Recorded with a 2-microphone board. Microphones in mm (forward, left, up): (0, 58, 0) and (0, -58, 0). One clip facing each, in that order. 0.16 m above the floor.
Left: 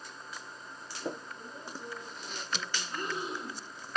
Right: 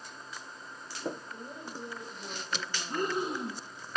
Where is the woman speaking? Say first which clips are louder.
Right 2 dB; 70° right (ahead or behind), 5.5 m; by 3.5 s 75° right (ahead or behind), 6.5 m.